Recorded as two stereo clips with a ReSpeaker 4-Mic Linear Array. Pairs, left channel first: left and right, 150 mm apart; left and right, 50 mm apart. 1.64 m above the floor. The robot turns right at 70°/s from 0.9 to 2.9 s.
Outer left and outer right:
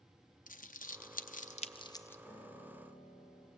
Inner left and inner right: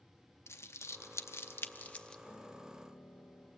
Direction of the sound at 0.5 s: 70° left (ahead or behind).